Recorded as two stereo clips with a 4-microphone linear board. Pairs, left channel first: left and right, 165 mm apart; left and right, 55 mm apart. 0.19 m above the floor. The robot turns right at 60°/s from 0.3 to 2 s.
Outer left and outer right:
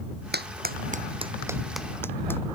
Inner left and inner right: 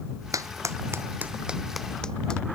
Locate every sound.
0.3 s a clap: 80° right; by 2.4 s 15° left (ahead or behind)